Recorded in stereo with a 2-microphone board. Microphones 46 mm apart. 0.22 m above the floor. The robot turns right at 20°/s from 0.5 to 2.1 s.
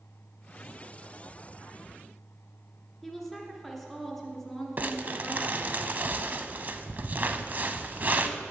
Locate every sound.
3.0 s a woman speaking: 5° right (ahead or behind), 1.5 m
4.8 s crumpling: 40° right (ahead or behind), 0.6 m